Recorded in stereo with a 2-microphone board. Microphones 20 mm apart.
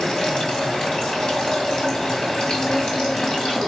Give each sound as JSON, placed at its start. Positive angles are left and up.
{"t": 0.0, "sound": "running water", "side_deg": 30, "distance_m": 2.0}